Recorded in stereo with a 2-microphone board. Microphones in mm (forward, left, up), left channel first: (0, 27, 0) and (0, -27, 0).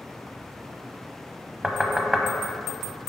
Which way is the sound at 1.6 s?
10° right (ahead or behind).